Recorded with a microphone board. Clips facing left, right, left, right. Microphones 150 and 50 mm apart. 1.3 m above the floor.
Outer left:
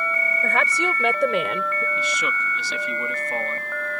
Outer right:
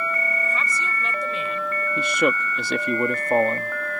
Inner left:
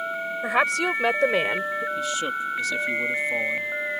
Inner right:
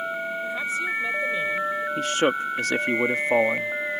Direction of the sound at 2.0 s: 55° right (ahead or behind).